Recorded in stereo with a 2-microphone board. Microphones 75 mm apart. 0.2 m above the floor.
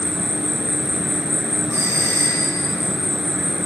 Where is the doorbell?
35° right (ahead or behind), 7.5 m.